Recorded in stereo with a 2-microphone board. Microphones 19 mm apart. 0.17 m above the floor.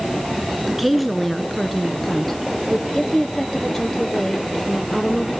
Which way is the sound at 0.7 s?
5° right (ahead or behind).